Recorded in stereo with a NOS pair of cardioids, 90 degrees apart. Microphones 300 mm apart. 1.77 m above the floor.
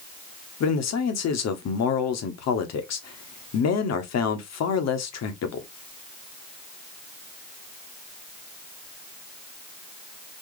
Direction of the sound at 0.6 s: 60° left.